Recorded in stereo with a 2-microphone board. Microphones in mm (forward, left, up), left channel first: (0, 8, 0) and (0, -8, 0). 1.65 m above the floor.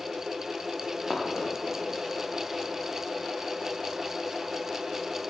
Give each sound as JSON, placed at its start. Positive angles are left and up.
{"t": 0.8, "sound": "running footsteps", "side_deg": 65, "distance_m": 4.0}